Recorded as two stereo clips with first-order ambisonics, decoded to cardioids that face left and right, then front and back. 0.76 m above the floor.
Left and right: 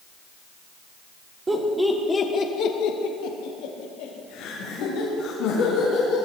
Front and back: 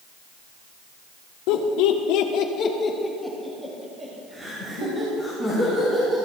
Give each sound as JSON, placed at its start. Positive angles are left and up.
{"t": 1.5, "sound": "laughter", "azimuth_deg": -15, "distance_m": 2.0}